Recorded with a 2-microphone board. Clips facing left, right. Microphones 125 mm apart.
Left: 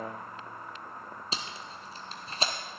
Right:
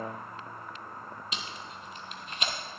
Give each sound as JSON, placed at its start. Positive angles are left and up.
{"t": 1.3, "sound": "tape being pulled", "side_deg": 35, "distance_m": 1.1}